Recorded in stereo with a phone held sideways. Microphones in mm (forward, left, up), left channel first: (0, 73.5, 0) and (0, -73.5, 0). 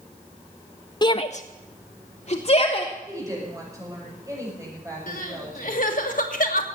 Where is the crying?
70° left (ahead or behind), 1.7 m.